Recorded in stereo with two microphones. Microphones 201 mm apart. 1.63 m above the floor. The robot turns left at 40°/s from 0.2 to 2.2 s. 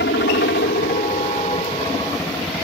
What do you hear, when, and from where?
0.0 s a helicopter: 90° left; by 2.6 s 10° left